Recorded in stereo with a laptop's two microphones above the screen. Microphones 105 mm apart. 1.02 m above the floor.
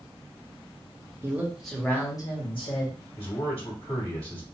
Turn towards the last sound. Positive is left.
turn(degrees=75)  # may be behind; listen again after turning